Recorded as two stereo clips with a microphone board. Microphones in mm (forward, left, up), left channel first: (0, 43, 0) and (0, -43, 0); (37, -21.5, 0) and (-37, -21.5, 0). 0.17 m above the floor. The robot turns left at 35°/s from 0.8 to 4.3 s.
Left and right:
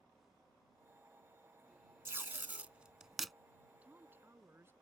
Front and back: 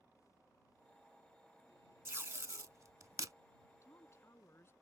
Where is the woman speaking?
20° right; by 4.7 s 40° right.